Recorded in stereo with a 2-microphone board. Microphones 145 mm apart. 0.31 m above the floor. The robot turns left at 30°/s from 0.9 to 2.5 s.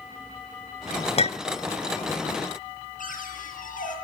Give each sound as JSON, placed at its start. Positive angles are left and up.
{"t": 1.2, "sound": "a clink", "side_deg": 45, "distance_m": 0.6}
{"t": 3.0, "sound": "a cupboard door", "side_deg": 70, "distance_m": 7.0}